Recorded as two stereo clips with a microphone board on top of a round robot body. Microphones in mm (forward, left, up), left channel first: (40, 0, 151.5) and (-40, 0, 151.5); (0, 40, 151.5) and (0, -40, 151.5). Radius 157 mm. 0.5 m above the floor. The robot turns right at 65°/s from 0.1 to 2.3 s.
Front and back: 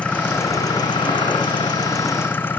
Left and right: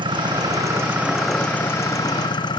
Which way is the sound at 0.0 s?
75° right.